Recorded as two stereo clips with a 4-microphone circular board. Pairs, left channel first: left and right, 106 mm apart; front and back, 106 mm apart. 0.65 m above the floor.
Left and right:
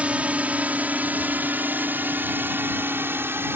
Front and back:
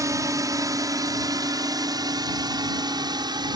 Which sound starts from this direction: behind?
A drone, at 0.0 s.